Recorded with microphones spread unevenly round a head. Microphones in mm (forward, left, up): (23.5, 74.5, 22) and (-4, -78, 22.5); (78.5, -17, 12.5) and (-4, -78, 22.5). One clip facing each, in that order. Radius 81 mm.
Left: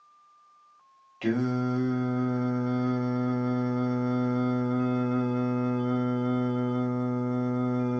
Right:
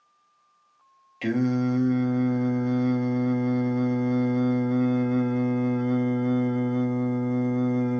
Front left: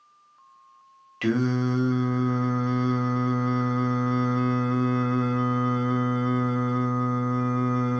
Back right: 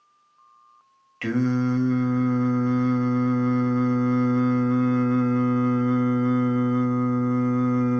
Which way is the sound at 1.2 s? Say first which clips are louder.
Right 3 dB, back right 1 dB; 35° right.